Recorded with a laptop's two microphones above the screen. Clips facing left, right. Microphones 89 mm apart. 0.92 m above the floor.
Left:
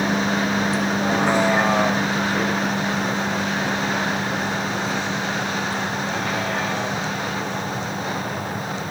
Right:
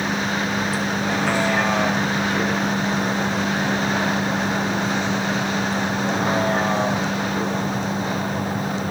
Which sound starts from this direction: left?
A vehicle, at 0.0 s.